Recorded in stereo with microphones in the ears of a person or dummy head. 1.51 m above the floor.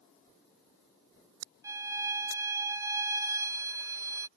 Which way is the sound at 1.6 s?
10° right (ahead or behind).